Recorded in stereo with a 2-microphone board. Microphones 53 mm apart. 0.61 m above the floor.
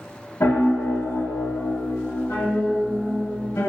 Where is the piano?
75° left (ahead or behind), 1.3 m.